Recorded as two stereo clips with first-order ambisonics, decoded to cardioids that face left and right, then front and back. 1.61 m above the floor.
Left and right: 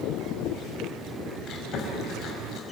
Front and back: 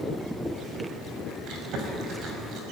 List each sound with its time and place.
1.5 s chewing: 140° left, 5 m